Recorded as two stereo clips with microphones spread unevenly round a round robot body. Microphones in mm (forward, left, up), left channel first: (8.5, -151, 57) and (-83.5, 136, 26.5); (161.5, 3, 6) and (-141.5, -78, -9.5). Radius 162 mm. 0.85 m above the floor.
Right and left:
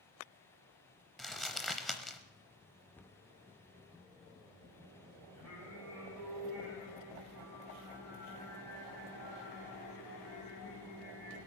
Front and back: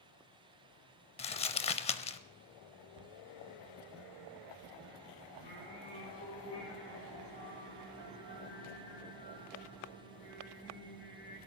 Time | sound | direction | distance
1.2 | crumpling | straight ahead | 0.6 m
3.0 | a cupboard door | 160° right | 0.7 m
5.3 | singing | 20° left | 7.5 m